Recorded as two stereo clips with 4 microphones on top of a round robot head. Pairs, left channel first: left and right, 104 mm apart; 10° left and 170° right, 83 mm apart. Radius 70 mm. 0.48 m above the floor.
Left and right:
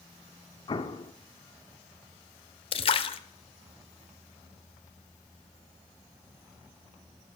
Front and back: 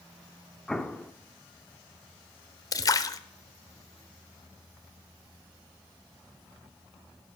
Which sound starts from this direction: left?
An explosion, at 0.7 s.